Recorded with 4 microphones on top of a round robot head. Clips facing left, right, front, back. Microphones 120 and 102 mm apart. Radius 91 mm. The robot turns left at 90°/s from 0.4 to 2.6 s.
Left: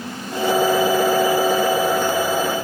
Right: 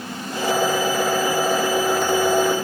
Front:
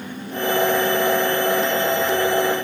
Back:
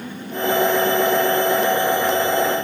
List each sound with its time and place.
Only background noise.